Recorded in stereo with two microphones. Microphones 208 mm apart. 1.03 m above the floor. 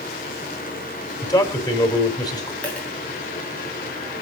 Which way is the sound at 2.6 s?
5° left (ahead or behind).